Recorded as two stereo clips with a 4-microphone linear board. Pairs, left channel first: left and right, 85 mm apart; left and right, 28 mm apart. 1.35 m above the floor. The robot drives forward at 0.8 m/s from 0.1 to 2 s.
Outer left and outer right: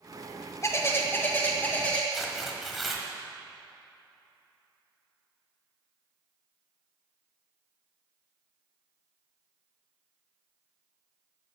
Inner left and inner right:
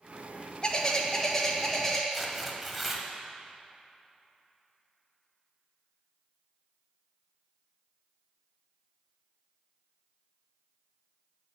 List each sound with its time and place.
0.6 s a bird: 35° left (ahead or behind), 1.0 m; by 2.0 s 15° left (ahead or behind), 2.0 m
2.1 s tearing paper: centre (ahead or behind), 1.5 m